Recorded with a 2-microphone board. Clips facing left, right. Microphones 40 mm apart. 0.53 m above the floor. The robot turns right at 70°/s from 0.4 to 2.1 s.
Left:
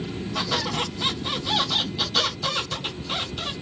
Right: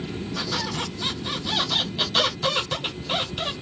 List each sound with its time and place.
0.3 s a squeak: 90° left, 2 m; by 3.5 s 150° right, 2 m